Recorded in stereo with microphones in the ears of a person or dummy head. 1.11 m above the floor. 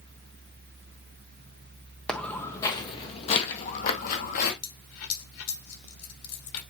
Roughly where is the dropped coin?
Left.